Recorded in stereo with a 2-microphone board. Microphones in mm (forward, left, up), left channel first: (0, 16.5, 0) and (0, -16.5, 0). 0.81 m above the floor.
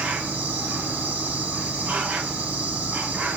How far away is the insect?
About 1.2 m.